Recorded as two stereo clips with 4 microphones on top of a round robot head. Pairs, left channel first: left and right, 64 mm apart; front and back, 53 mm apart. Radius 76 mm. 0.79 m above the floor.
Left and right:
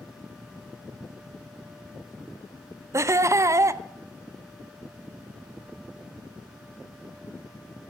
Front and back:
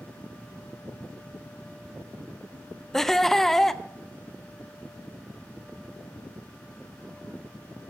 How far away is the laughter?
About 0.6 m.